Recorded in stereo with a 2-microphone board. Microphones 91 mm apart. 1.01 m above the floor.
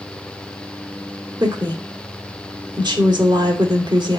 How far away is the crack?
I don't hear a crack.